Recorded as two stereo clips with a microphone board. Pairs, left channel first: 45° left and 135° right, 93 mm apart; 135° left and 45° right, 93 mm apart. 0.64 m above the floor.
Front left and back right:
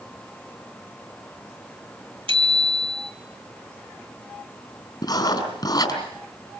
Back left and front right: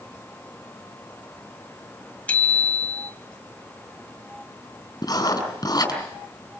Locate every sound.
2.3 s a bicycle bell: 150° right, 2.5 m
5.0 s writing: 90° left, 4.5 m